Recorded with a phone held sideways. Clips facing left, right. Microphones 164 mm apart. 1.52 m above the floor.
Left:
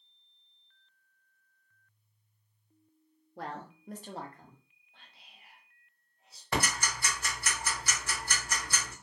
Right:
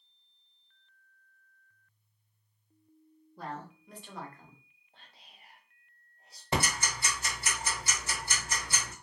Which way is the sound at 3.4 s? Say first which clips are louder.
Even; 70° left (ahead or behind).